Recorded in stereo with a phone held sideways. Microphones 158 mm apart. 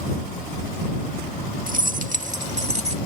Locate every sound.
1.7 s keys jangling: 60° right (ahead or behind); by 3.0 s 45° right (ahead or behind)